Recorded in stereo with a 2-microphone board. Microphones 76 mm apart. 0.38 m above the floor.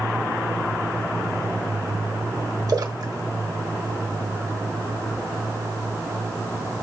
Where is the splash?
50° right (ahead or behind), 1.2 m.